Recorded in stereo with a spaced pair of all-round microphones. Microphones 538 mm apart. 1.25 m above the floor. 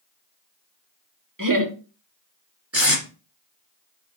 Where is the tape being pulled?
25° right (ahead or behind), 2.5 m.